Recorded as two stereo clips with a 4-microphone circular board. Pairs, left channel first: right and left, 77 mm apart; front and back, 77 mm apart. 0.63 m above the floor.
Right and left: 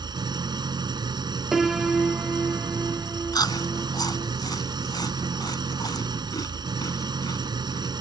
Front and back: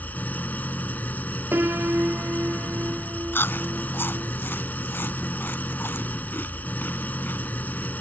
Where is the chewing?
60° right.